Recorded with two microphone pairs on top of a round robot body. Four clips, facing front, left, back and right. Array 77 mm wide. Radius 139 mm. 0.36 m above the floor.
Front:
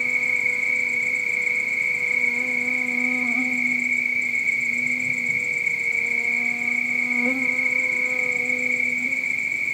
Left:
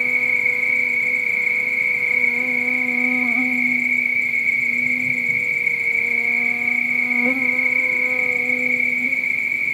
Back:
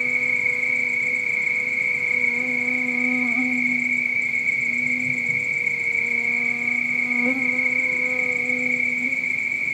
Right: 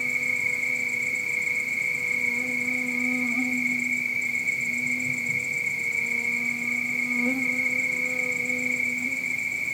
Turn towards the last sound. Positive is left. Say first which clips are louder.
# left 7 dB, back 1 dB
turn(degrees=90)